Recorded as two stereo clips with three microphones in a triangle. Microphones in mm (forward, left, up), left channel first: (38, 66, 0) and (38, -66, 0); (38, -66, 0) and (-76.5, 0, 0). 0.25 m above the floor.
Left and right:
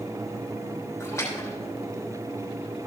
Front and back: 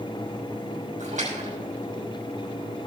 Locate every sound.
1.0 s a splash: 155° left, 6 m